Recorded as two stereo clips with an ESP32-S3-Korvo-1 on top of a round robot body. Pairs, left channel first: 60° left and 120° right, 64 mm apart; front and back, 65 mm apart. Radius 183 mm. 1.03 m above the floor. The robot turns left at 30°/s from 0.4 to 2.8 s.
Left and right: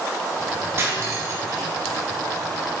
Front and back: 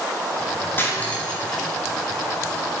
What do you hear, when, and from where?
0.8 s cutlery clinking: 65° right, 1.3 m; by 1.7 s 90° right, 1.3 m